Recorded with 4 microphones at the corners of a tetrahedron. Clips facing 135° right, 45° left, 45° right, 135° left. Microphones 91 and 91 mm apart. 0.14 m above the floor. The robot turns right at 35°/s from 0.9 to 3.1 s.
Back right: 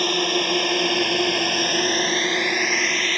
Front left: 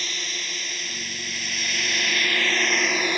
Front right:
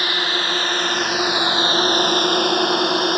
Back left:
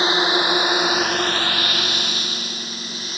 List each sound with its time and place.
0.0 s a drone: 160° right; by 3.2 s 30° right